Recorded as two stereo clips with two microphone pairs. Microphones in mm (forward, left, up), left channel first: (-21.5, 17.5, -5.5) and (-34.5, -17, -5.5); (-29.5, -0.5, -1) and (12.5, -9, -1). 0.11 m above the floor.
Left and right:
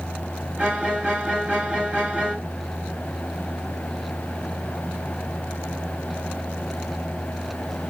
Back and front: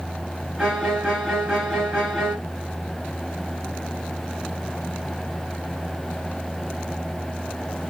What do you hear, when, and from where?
0.6 s a violin: 95° right, 1.7 m